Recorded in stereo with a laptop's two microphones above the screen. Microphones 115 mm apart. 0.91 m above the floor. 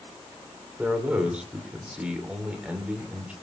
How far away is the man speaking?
About 2.5 m.